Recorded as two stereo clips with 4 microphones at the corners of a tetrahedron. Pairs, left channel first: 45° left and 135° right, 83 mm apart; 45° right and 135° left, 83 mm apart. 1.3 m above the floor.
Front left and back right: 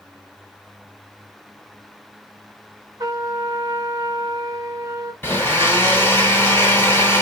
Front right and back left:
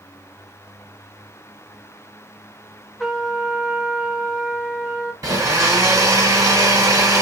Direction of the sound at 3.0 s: 135° right.